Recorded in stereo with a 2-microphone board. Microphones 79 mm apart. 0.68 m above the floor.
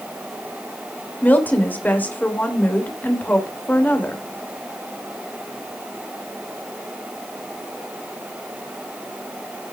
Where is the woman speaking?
25° left (ahead or behind), 2.5 m.